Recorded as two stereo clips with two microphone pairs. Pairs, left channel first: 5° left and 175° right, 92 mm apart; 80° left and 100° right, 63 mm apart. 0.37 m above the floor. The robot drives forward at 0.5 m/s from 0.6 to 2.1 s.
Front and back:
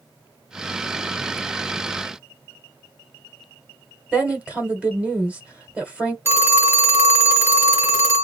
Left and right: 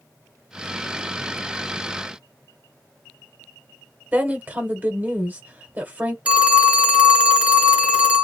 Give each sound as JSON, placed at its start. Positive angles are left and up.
{"t": 4.1, "sound": "a woman speaking", "azimuth_deg": -110, "distance_m": 1.2}
{"t": 6.2, "sound": "a phone ringing", "azimuth_deg": -150, "distance_m": 1.0}